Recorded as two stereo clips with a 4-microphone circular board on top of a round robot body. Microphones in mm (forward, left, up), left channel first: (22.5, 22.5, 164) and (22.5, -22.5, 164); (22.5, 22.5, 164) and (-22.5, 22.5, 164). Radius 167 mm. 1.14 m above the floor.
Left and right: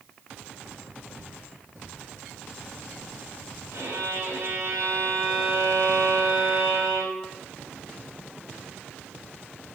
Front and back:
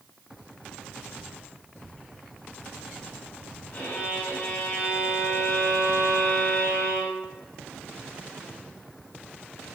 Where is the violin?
50° right, 4.5 m.